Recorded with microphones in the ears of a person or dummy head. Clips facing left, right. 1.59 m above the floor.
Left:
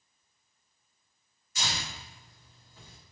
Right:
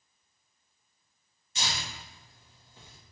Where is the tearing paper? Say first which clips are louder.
Even; 25° right (ahead or behind), 1.3 m.